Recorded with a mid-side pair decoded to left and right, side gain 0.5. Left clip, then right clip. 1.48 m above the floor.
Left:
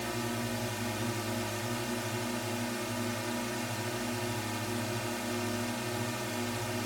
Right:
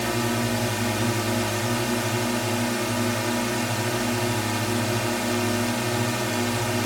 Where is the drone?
60° right.